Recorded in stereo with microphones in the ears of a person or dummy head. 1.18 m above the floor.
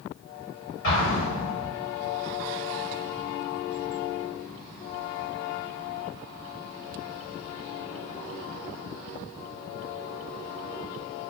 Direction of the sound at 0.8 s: 55° left (ahead or behind).